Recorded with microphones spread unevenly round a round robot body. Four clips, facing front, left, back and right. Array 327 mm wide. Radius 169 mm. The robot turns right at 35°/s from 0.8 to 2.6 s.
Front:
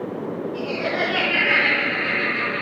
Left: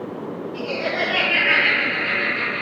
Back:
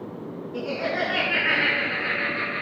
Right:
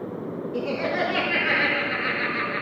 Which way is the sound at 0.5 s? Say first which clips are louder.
Even, even; 110° right.